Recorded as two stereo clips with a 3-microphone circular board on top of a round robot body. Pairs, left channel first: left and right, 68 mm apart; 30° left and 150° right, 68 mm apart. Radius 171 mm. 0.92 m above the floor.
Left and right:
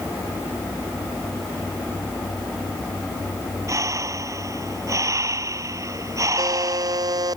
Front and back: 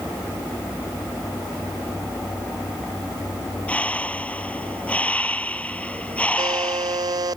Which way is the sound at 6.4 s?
120° right.